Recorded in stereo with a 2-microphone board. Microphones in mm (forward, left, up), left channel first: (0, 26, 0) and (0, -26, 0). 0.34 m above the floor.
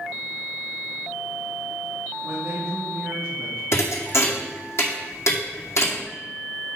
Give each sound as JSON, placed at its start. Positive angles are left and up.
{"t": 2.2, "sound": "a woman speaking", "side_deg": -35, "distance_m": 3.5}
{"t": 3.7, "sound": "a thud", "side_deg": 65, "distance_m": 2.0}